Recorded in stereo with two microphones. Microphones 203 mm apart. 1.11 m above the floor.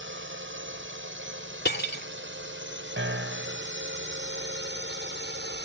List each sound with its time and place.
0.0 s a drone: 70° right (ahead or behind); by 5.7 s 60° right (ahead or behind)
1.6 s cutlery clinking: 55° left (ahead or behind)
3.0 s a piano: 80° right